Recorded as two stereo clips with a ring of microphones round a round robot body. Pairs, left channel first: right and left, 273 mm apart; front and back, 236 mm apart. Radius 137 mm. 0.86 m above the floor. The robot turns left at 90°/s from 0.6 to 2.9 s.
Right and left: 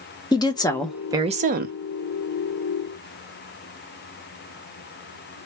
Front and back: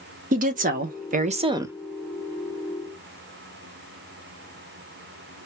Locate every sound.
0.3 s a woman speaking: 155° right, 0.6 m; by 1.8 s 100° left, 0.6 m